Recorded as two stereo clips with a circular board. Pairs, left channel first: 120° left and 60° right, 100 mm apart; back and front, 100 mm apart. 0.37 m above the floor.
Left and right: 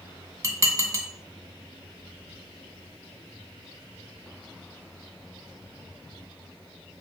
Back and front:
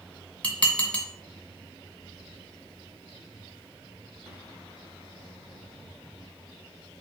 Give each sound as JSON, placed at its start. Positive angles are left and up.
{"t": 0.4, "sound": "dishes clattering", "azimuth_deg": -110, "distance_m": 0.6}